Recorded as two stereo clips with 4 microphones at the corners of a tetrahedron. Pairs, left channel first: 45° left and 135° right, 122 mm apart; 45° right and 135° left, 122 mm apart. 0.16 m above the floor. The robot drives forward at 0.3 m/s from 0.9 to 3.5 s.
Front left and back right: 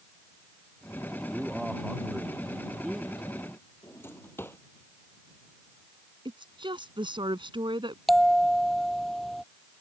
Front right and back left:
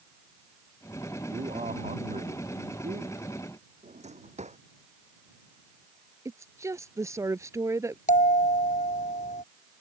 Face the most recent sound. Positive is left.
turn(degrees=-45)